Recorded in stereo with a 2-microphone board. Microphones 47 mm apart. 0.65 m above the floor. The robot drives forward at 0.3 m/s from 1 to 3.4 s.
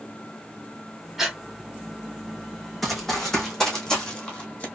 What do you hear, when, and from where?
1.2 s breathing: 5° right (ahead or behind), 2 m
2.8 s running footsteps: centre (ahead or behind), 2 m; by 4.7 s 25° left (ahead or behind), 1.5 m